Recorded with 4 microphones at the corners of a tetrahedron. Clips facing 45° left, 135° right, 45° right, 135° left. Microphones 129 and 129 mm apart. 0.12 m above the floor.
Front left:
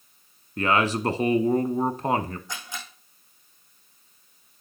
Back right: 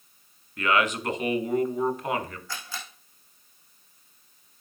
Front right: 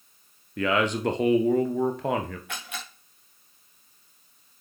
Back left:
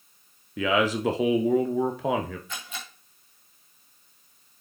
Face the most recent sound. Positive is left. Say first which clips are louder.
# front left 1 dB, front right 1 dB
turn(degrees=-25)